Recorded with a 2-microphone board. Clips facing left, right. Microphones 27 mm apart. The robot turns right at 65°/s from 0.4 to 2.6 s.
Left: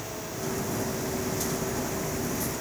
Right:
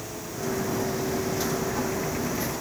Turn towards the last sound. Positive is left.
No sound to turn to.